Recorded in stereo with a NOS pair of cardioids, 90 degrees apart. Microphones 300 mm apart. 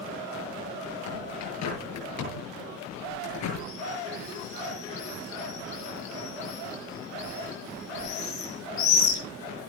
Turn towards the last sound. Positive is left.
turn(degrees=65)